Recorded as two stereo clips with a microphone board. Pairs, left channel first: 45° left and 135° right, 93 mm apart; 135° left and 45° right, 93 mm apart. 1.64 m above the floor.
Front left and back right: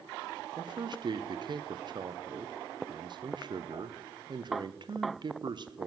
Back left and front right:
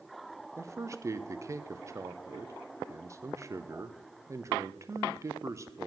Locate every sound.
0.6 s a man speaking: 100° right, 0.5 m